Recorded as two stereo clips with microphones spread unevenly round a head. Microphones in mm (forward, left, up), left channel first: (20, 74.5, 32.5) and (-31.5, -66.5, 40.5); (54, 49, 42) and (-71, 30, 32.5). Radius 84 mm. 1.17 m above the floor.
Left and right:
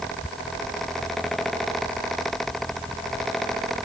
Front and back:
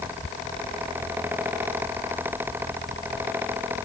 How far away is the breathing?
No breathing in this recording.